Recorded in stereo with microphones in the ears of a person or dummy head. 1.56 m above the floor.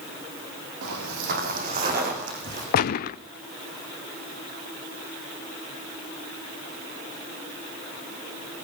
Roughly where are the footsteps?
Right.